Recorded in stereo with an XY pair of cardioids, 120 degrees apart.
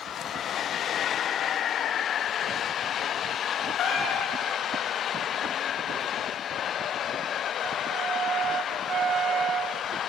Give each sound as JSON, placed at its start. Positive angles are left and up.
{"t": 3.8, "sound": "a cat meowing", "azimuth_deg": 65, "distance_m": 2.5}